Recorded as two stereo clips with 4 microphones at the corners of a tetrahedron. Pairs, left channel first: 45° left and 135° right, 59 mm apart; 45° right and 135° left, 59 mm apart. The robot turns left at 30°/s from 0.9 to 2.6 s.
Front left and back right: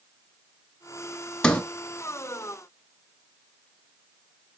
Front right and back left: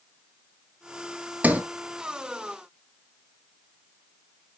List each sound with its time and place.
1.4 s a sliding door: 110° left, 0.6 m; by 1.6 s 105° left, 0.6 m